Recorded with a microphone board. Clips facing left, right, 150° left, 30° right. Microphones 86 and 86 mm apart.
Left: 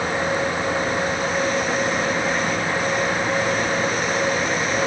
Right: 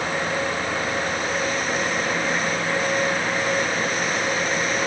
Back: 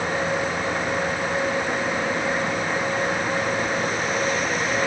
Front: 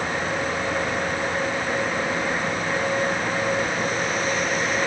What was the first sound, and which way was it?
Only background noise.